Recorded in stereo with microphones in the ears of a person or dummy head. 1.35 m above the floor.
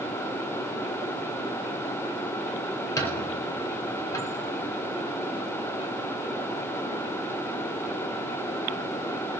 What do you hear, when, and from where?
3.0 s a squeak: 15° left (ahead or behind), 6.5 m